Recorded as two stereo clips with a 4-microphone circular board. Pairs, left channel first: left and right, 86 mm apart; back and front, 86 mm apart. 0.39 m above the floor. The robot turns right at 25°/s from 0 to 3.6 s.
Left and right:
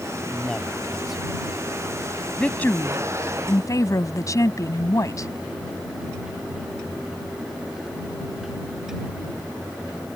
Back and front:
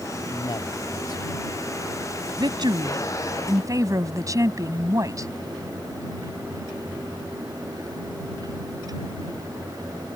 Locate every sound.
0.3 s a man speaking: 165° left; by 1.6 s 165° right
2.4 s a woman speaking: 15° left; by 5.3 s 45° left